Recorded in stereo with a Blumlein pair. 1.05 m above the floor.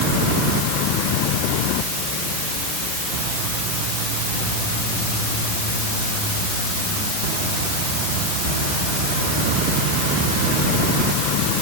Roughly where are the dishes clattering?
I don't hear dishes clattering.